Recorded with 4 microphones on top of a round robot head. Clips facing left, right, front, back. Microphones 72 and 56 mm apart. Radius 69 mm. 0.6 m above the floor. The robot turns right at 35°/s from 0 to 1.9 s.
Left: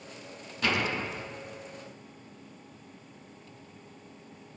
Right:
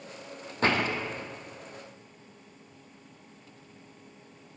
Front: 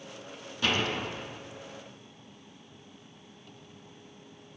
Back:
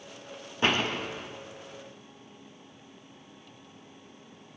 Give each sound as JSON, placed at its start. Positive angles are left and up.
{"t": 0.6, "sound": "a door slam", "azimuth_deg": -130, "distance_m": 0.8}